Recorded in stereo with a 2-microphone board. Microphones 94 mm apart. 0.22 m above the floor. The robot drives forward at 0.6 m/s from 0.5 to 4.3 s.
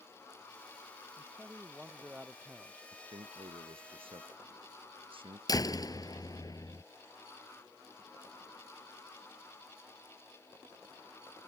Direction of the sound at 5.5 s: 40° left (ahead or behind).